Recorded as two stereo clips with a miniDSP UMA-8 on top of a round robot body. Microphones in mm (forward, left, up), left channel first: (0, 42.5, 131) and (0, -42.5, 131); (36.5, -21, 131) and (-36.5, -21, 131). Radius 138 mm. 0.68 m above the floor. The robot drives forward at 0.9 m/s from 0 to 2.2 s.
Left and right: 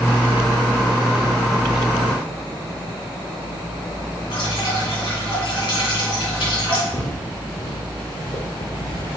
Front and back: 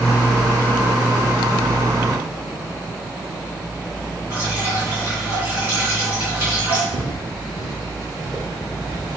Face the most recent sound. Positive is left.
turn(degrees=120)